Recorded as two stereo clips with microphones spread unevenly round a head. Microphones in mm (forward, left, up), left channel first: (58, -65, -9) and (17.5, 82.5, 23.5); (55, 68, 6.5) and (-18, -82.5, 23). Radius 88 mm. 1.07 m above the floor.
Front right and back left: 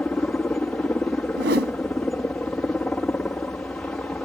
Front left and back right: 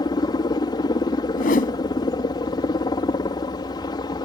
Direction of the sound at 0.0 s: 5° left.